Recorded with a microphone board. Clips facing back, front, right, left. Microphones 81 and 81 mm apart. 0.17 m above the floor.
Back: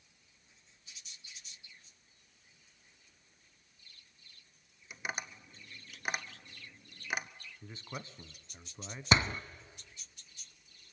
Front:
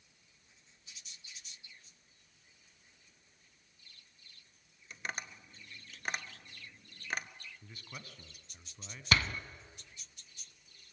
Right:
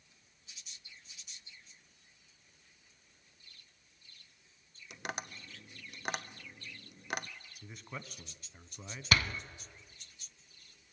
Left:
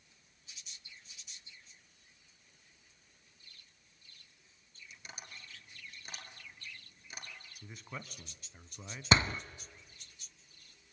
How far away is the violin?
No violin in this recording.